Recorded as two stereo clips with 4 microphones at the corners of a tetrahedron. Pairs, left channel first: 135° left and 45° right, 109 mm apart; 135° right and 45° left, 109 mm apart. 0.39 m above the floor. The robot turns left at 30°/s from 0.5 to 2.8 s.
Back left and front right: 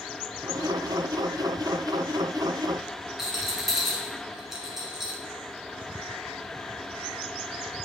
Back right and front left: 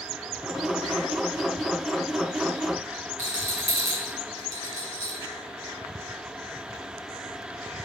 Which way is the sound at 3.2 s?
135° right.